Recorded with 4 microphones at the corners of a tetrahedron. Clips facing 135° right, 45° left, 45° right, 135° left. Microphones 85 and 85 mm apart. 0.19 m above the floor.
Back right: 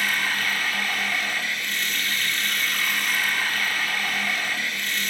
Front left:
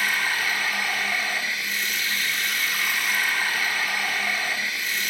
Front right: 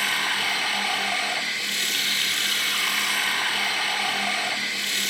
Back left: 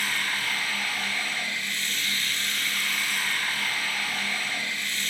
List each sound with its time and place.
0.0 s running water: 35° right, 3 m